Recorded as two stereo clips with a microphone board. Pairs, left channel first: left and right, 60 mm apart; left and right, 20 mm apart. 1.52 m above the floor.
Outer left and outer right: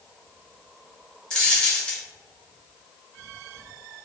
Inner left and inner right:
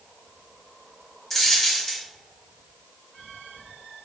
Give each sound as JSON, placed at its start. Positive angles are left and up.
{"t": 1.3, "sound": "a dropped coin", "side_deg": 15, "distance_m": 0.8}